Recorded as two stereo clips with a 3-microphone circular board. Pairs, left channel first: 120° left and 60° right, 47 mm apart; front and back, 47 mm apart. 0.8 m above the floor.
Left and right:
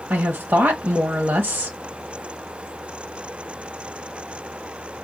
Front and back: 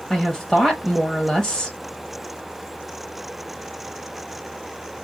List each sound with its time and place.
0.1 s a woman speaking: 85° right, 1.0 m